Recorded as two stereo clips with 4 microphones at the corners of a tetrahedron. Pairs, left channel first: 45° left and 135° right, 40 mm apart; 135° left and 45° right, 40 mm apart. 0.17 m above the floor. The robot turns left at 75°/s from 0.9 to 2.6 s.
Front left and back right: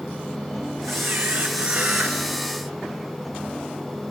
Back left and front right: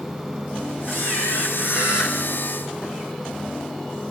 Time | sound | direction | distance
0.9 | a camera shutter | 140° right | 4 m